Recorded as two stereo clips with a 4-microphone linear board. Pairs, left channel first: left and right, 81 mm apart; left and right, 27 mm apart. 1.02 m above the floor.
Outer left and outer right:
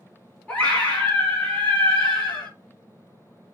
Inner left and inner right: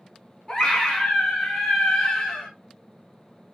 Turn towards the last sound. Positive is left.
turn(degrees=15)  # may be behind; listen again after turning